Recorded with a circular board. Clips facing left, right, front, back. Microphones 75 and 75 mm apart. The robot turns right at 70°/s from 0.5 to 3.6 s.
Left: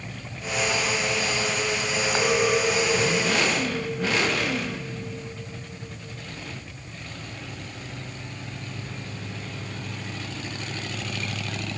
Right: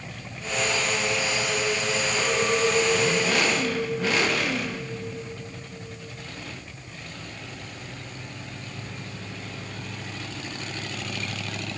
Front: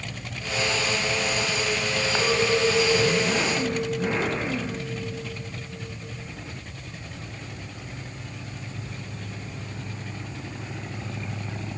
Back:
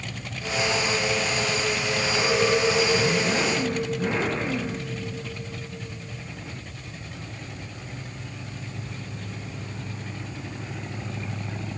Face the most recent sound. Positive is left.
turn(degrees=160)